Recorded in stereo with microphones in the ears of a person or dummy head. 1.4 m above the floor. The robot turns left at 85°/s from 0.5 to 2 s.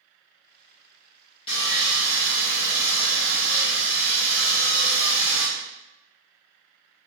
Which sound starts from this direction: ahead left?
Sawing, at 1.5 s.